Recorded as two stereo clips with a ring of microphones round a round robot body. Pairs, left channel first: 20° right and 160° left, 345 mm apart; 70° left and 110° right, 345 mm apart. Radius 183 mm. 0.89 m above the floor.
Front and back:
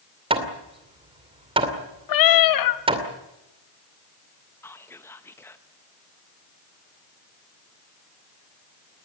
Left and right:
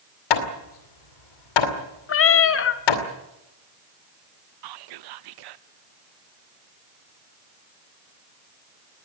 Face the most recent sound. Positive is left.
turn(degrees=-105)